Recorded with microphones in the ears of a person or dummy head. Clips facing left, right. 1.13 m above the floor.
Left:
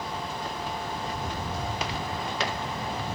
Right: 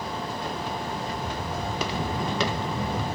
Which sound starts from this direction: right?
Footsteps, at 1.7 s.